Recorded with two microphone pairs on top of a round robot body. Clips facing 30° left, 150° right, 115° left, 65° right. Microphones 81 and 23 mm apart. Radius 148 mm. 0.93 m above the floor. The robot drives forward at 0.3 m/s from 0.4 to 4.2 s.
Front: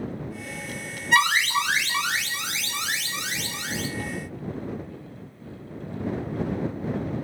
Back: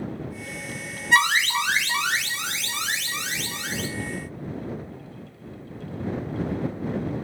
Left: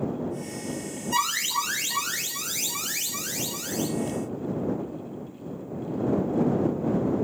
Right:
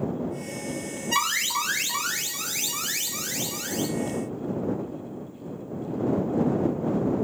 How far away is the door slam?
No door slam in this recording.